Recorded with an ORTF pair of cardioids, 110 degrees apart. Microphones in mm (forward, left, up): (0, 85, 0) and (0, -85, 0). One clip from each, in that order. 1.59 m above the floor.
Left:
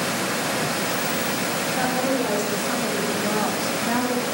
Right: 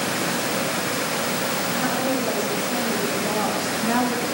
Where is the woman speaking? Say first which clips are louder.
Left 1 dB; 45° left, 1.4 m; by 4.2 s 35° right, 0.5 m.